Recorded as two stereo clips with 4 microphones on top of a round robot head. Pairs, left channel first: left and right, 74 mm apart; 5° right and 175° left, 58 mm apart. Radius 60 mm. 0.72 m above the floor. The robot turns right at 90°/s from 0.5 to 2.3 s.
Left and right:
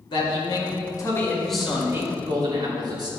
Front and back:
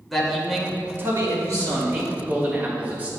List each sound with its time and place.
0.1 s a man speaking: 85° left, 3 m; by 3.1 s 115° right, 3 m